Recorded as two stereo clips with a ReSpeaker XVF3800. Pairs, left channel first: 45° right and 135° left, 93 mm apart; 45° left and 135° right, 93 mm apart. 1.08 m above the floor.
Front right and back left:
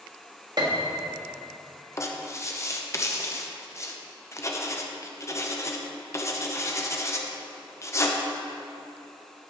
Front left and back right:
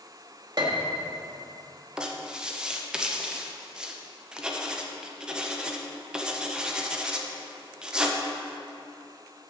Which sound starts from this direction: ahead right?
Writing, at 2.0 s.